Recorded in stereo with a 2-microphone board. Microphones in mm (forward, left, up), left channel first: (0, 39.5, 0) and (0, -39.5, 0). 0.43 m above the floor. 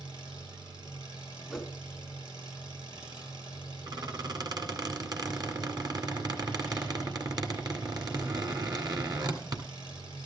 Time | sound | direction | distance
0.0 | an engine running | 80° right | 4 m
1.5 | a whoosh | centre (ahead or behind) | 1.1 m
3.9 | a squeak | 60° right (ahead or behind) | 1.7 m